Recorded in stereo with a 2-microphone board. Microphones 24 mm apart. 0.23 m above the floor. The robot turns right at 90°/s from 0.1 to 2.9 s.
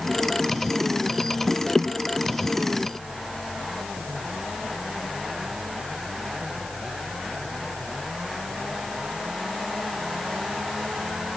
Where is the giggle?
No giggle in this recording.